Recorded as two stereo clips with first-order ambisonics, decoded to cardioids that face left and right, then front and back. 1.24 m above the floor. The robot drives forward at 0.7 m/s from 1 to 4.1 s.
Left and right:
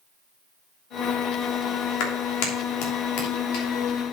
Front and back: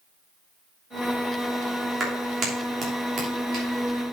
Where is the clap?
105° left, 3 m; by 3.6 s 125° left, 3.5 m.